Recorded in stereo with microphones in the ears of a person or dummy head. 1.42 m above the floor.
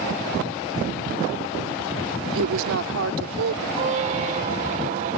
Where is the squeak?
40° right (ahead or behind).